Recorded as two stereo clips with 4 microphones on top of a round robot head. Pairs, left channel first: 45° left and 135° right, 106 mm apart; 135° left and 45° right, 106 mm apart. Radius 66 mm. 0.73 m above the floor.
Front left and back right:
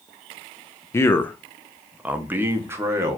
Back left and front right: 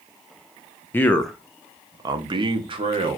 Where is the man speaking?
85° left, 0.6 m; by 3.2 s 75° right, 1.2 m.